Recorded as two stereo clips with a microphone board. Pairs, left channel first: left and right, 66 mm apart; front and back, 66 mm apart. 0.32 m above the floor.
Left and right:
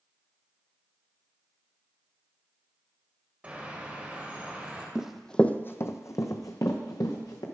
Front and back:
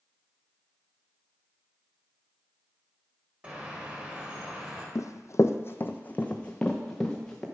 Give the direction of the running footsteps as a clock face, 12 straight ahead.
12 o'clock.